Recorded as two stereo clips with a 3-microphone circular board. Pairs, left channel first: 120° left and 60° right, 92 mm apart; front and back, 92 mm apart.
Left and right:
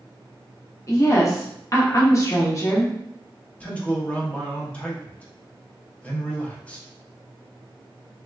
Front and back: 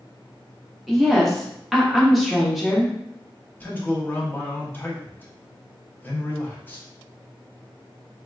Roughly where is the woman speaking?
Left.